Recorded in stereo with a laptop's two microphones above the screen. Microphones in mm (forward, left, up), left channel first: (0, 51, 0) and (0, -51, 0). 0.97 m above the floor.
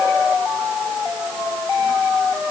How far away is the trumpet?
No trumpet in this recording.